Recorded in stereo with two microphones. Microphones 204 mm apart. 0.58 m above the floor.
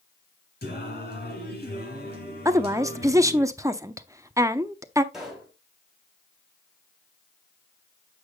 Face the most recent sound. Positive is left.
turn(degrees=0)  # may be behind; listen again after turning